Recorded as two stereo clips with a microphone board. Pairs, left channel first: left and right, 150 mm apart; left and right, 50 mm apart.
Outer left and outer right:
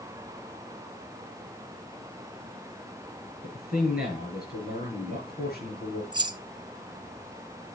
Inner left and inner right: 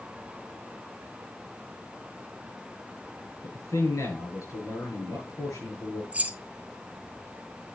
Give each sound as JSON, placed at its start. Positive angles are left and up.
{"t": 3.4, "sound": "a man speaking", "side_deg": 75, "distance_m": 7.0}
{"t": 6.1, "sound": "keys jangling", "side_deg": -30, "distance_m": 0.5}